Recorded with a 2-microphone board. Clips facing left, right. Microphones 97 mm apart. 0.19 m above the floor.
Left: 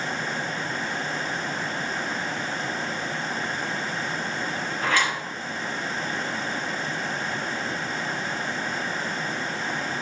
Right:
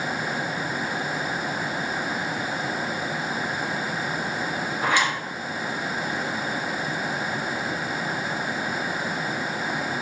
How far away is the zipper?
About 2.5 m.